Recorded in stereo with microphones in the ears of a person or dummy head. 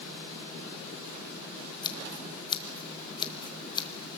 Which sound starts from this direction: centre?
Scissors, at 1.8 s.